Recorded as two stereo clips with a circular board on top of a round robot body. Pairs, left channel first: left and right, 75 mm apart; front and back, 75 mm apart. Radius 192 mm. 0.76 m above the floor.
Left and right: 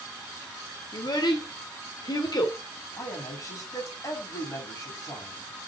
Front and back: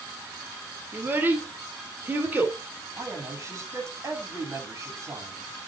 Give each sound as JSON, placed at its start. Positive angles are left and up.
{"t": 0.9, "sound": "a child speaking", "azimuth_deg": 115, "distance_m": 3.0}
{"t": 3.0, "sound": "a man speaking", "azimuth_deg": 130, "distance_m": 7.5}